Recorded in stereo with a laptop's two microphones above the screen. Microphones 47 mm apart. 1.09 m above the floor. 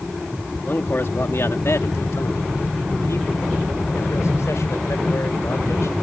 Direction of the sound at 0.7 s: 45° left (ahead or behind).